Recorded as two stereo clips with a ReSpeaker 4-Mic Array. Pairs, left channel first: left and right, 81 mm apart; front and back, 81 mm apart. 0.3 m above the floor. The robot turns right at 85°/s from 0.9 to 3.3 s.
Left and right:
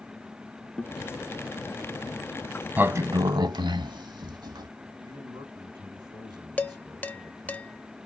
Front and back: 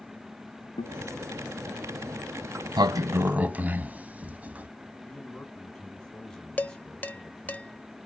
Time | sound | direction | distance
0.8 | a guitar | 10° left | 0.6 m
2.8 | a sliding door | 155° right | 0.5 m
5.0 | a man speaking | 85° right | 2.5 m
6.6 | dishes clattering | 45° left | 0.6 m